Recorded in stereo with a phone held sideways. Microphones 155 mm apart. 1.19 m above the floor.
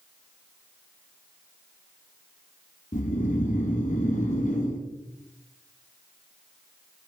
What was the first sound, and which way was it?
Snoring, 55° left (ahead or behind).